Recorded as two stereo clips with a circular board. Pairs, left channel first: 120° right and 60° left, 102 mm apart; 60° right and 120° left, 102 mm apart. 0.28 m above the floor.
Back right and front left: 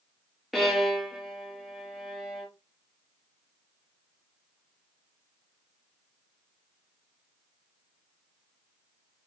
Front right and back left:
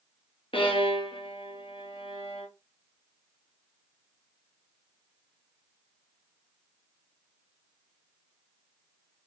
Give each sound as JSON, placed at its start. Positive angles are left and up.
{"t": 0.5, "sound": "a violin", "azimuth_deg": -30, "distance_m": 0.9}